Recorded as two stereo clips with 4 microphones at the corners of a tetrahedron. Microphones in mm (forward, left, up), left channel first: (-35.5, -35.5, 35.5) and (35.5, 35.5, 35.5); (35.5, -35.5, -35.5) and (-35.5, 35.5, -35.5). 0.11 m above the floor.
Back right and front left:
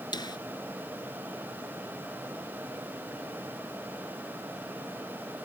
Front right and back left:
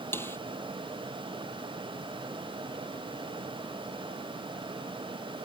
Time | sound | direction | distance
0.1 | a snare drum | 105° right | ?